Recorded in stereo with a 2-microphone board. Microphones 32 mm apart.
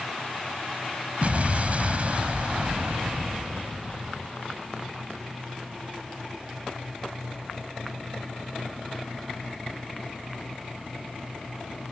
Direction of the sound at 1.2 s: 50° right (ahead or behind).